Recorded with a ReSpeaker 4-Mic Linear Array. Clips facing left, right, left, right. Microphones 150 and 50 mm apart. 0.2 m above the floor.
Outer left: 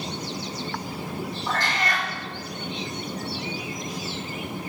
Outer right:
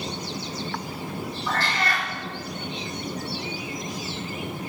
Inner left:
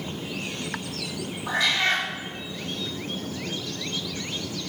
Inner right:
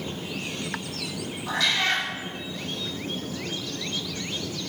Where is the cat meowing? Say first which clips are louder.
Outer right 1 dB, inner left 1 dB; 15° left (ahead or behind), 4.5 m.